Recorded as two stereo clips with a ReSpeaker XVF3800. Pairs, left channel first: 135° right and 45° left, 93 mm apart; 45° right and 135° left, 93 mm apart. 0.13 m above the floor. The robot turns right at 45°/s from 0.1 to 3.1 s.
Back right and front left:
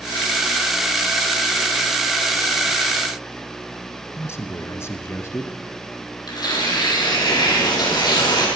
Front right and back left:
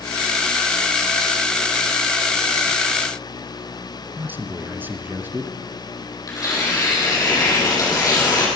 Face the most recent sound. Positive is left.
turn(degrees=-95)